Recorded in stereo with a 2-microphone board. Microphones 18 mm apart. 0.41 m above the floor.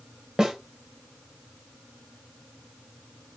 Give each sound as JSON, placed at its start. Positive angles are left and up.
{"t": 0.4, "sound": "a snare drum", "side_deg": -40, "distance_m": 2.0}